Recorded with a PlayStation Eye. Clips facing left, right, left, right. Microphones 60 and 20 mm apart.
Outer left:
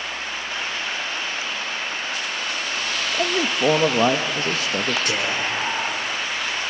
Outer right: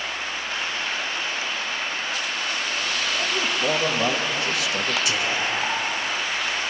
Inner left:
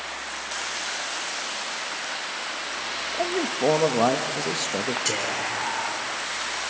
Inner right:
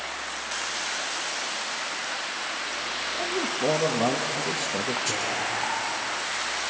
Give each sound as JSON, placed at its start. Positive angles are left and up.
{"t": 3.1, "sound": "a man speaking", "side_deg": 40, "distance_m": 0.8}
{"t": 5.0, "sound": "whispering", "side_deg": 50, "distance_m": 4.0}